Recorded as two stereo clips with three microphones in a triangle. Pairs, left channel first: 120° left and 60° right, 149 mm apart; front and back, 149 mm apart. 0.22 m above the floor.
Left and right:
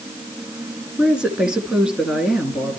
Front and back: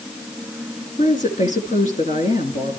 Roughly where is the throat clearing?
No throat clearing in this recording.